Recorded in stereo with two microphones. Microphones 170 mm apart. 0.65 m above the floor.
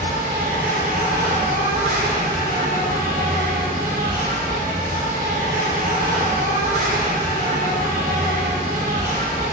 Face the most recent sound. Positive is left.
turn(degrees=-55)  # may be behind; listen again after turning